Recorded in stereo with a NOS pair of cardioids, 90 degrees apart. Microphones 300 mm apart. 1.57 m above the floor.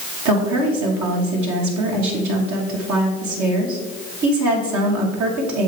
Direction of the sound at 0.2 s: 70° right.